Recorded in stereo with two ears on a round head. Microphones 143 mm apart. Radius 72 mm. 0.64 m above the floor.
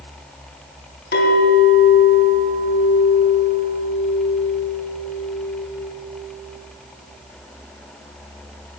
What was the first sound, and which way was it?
A clink, 70° left (ahead or behind).